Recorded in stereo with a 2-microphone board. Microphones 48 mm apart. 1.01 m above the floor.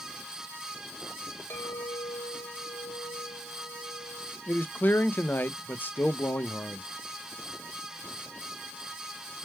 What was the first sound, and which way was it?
A clink, 65° left (ahead or behind).